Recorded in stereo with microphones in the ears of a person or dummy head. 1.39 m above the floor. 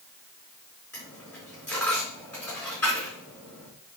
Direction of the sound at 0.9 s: 10° left (ahead or behind).